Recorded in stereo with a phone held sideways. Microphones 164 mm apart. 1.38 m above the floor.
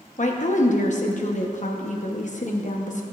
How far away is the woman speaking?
About 0.9 m.